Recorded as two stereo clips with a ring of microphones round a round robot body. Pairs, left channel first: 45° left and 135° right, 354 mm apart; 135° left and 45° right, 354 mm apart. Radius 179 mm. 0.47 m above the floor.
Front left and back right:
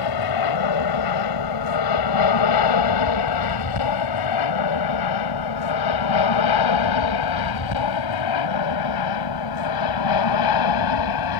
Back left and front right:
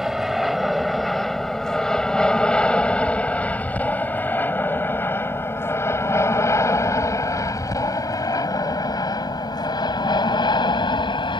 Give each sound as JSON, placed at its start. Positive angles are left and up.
{"t": 0.0, "sound": "an aircraft", "azimuth_deg": 45}